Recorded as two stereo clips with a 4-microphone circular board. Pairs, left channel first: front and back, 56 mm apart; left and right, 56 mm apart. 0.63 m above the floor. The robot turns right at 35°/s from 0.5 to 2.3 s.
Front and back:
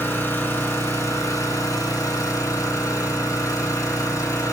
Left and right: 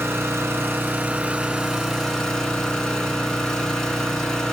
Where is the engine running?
45° right, 4 m; by 4.5 s 15° left, 4 m.